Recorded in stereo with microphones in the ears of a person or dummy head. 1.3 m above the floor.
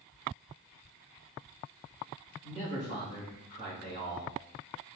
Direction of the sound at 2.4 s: 35° right (ahead or behind).